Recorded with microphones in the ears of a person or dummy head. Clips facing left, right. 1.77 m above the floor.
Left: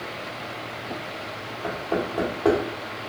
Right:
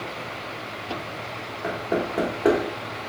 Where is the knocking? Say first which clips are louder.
Right 1 dB; 20° right (ahead or behind), 1.5 m.